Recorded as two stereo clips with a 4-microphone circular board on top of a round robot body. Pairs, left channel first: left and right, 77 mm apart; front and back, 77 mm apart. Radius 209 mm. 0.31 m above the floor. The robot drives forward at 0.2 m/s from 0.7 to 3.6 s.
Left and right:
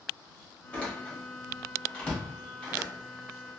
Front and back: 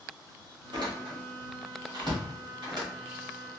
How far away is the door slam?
About 1.4 m.